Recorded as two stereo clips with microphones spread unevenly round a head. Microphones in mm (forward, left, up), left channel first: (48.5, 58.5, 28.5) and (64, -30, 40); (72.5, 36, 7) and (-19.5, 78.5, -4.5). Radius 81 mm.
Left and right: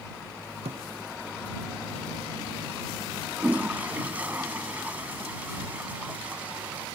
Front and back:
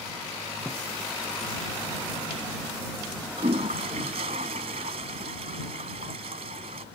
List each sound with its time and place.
0.7 s a thud: 105° right
3.4 s a toilet flushing: 155° right